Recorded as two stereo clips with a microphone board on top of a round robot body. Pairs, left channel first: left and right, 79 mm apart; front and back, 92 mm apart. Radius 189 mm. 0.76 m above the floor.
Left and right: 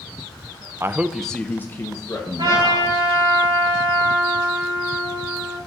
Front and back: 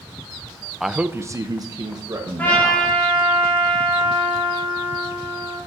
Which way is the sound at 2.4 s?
70° right.